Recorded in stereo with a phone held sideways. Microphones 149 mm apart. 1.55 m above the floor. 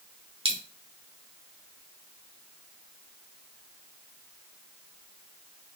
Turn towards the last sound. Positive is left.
turn(degrees=-35)  # may be behind; listen again after turning